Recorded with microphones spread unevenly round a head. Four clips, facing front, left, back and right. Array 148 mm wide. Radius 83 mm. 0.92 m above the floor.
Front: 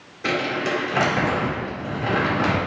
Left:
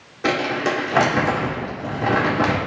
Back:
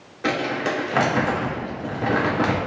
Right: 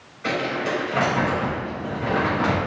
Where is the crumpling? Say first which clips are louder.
Left 4 dB, even; 115° left, 2 m.